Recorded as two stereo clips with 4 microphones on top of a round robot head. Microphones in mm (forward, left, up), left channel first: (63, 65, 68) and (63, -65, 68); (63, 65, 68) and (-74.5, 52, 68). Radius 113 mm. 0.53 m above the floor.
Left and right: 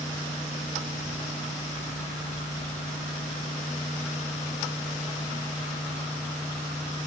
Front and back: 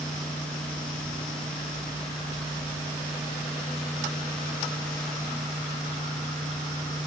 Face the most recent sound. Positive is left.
No sound to turn to.